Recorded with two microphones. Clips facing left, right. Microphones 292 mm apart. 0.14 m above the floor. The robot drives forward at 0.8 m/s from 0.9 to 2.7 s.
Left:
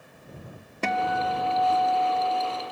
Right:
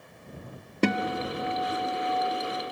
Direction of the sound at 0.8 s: 45° right (ahead or behind).